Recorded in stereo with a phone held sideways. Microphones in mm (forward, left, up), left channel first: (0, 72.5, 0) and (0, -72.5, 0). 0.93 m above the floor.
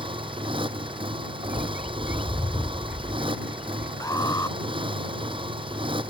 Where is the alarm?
25° left (ahead or behind).